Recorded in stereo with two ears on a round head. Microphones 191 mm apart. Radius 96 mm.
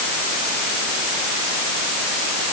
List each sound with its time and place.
Only background noise.